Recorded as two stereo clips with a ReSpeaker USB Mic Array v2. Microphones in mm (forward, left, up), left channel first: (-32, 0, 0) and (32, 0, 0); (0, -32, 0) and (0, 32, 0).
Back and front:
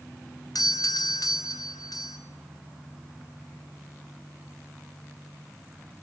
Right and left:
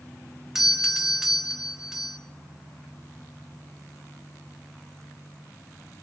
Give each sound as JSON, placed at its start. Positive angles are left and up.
{"t": 0.6, "sound": "a doorbell", "azimuth_deg": 175, "distance_m": 1.4}